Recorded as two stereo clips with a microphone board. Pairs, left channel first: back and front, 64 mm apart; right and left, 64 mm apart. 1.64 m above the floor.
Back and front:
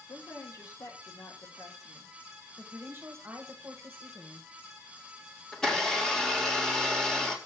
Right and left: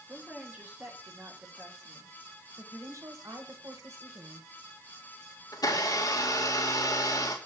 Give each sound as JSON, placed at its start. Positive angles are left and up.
{"t": 0.1, "sound": "a woman speaking", "azimuth_deg": 155, "distance_m": 3.0}
{"t": 2.6, "sound": "a woman speaking", "azimuth_deg": 55, "distance_m": 1.7}
{"t": 5.5, "sound": "a blender", "azimuth_deg": -100, "distance_m": 2.0}